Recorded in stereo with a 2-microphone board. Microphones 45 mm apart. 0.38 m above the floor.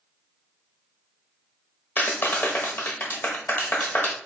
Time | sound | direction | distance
2.0 | a clap | 50° left (ahead or behind) | 0.9 m